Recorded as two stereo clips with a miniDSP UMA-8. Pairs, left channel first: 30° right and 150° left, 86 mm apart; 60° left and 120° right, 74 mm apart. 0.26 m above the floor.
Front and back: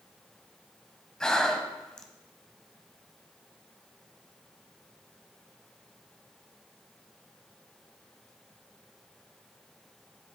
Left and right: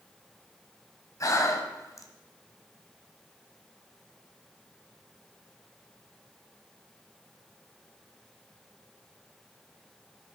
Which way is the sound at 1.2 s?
50° left.